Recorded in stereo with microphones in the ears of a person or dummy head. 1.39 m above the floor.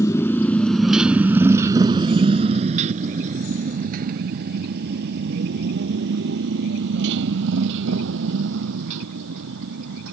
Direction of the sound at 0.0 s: 15° left (ahead or behind).